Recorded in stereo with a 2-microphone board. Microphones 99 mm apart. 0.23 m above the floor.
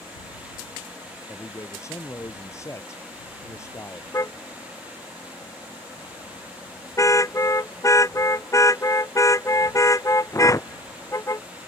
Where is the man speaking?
30° left (ahead or behind).